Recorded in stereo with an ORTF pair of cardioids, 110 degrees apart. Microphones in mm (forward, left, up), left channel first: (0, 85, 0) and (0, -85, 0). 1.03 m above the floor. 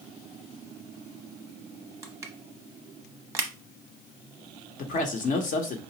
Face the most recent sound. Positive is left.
turn(degrees=50)